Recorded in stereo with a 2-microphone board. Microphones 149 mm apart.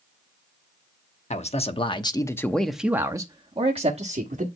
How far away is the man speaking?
About 1.0 m.